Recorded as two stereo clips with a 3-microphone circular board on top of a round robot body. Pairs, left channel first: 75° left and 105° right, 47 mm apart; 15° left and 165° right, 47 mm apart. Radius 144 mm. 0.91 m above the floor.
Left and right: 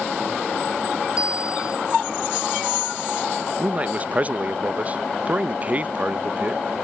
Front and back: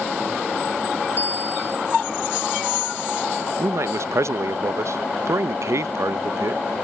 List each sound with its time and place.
1.2 s a bicycle bell: 35° right
3.6 s a man speaking: 165° right